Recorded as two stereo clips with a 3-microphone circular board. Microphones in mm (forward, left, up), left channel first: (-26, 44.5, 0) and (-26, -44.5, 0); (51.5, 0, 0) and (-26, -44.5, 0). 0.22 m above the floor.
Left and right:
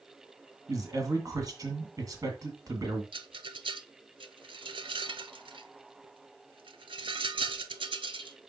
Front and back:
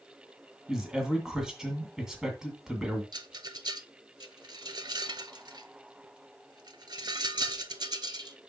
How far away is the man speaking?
About 1.9 m.